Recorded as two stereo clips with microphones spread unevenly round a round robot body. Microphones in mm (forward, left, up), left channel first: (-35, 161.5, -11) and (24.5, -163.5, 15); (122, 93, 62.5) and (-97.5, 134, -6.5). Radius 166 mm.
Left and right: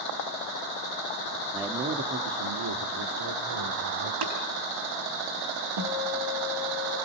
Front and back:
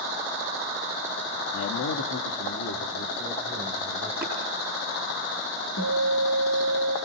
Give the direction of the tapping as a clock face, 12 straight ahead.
3 o'clock.